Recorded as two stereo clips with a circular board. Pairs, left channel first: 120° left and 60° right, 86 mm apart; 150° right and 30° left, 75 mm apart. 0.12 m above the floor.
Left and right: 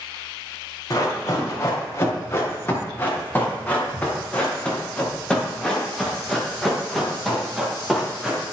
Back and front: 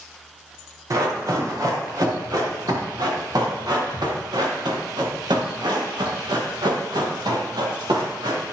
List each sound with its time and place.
0.9 s running footsteps: 70° left, 4 m; by 8.4 s 25° left, 5.5 m